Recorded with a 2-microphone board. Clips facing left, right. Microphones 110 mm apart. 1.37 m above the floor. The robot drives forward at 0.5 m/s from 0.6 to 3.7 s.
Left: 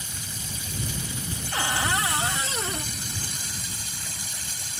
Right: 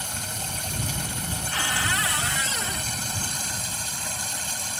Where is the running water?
70° right (ahead or behind); by 4.8 s 65° right (ahead or behind).